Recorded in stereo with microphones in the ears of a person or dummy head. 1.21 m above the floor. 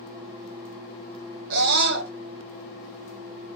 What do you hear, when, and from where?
1.5 s a scream: 60° right (ahead or behind), 2 m